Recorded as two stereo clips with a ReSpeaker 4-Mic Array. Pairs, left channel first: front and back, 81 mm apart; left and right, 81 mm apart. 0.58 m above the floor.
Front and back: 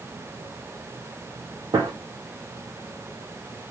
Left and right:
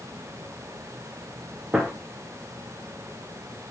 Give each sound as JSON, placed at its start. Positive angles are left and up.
{"t": 1.7, "sound": "a gunshot", "azimuth_deg": -165, "distance_m": 0.6}